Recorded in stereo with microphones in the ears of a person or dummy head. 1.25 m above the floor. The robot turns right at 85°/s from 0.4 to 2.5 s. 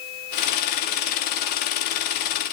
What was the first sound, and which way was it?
Only background noise.